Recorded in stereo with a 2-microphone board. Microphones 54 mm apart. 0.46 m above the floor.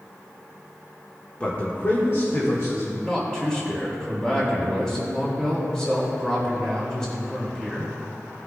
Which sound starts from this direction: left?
A man speaking, at 1.4 s.